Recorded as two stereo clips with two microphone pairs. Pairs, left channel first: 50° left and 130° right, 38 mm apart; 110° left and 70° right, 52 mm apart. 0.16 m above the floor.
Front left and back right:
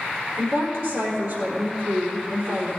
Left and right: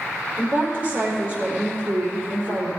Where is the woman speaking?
130° right, 4 m.